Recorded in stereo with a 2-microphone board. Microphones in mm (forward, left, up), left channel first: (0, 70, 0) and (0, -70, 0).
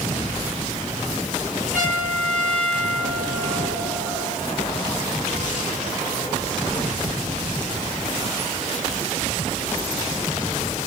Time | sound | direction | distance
1.7 | a trumpet | 70° right (ahead or behind) | 4 m